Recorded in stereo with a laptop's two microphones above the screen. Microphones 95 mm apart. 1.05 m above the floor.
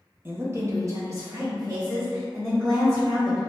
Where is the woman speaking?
25° right (ahead or behind), 0.6 m; by 3.4 s 35° right (ahead or behind), 2 m.